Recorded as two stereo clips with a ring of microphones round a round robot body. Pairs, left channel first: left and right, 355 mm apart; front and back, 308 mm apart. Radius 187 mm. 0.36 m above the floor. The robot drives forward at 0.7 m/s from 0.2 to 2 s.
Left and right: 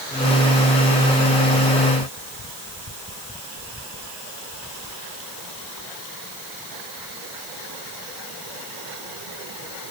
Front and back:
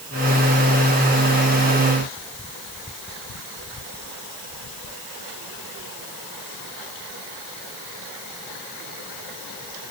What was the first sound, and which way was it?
Only background noise.